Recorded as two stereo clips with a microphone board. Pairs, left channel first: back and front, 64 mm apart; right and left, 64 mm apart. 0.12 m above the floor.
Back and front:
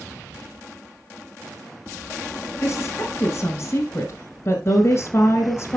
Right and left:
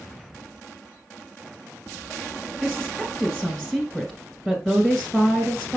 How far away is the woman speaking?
About 1.5 m.